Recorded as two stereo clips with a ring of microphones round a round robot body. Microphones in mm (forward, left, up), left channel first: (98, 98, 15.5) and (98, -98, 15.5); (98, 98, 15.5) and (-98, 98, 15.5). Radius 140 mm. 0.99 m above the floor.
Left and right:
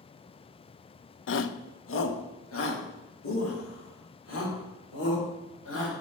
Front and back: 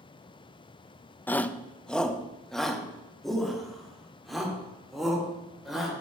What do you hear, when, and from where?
1.3 s a shout: 80° left, 0.6 m; by 5.9 s 90° left, 3.5 m